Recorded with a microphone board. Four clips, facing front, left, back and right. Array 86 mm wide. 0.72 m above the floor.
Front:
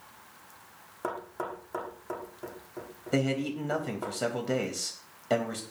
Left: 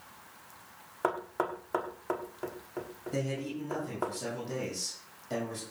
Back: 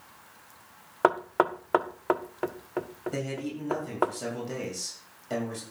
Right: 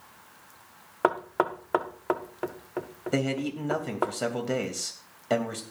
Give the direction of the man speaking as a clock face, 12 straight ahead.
2 o'clock.